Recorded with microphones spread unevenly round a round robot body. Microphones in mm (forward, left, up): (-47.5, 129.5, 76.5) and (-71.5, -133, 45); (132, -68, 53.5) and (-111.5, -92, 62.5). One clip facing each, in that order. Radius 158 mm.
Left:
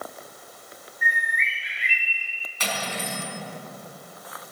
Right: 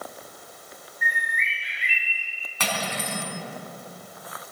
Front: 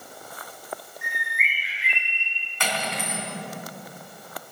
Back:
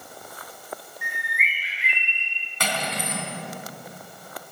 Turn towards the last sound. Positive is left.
turn(degrees=-125)